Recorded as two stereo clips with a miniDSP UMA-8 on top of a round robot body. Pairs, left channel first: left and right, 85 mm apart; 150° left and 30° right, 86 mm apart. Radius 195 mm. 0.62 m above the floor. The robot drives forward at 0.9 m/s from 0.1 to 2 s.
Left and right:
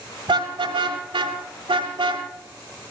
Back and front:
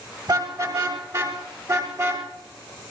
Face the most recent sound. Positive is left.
turn(degrees=-85)